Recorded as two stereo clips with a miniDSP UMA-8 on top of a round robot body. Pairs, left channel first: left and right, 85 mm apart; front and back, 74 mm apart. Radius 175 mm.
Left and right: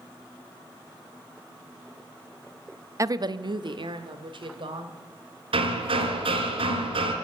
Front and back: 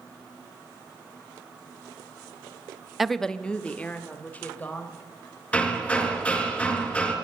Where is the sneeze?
I don't hear a sneeze.